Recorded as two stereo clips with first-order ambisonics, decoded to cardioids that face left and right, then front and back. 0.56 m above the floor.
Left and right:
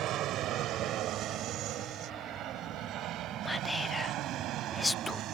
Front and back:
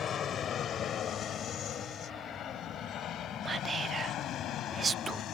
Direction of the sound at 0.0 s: 55° right.